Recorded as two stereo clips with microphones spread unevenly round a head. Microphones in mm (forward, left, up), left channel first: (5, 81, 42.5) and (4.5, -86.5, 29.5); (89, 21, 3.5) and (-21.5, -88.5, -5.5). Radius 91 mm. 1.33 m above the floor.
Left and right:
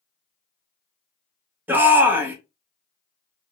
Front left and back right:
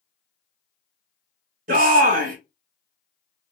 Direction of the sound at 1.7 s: 165° right.